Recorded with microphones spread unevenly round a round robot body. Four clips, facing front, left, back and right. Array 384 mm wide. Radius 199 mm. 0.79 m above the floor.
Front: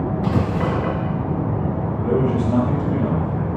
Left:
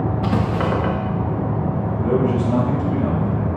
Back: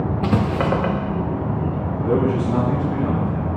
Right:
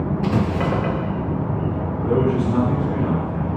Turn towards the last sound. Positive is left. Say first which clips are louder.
# even, back 1 dB
turn(degrees=50)